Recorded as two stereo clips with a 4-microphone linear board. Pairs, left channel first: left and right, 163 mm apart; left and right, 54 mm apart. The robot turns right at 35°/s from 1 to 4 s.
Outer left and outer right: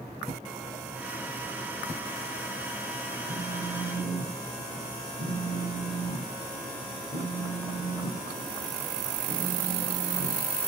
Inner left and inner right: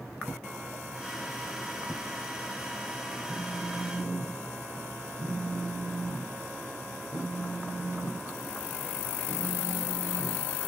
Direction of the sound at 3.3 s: 65° right (ahead or behind).